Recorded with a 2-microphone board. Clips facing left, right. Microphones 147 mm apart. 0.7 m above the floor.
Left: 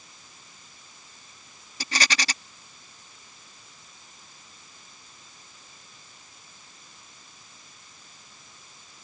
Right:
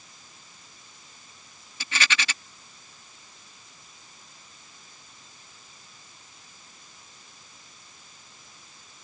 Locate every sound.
1.8 s a rattle: 35° left (ahead or behind)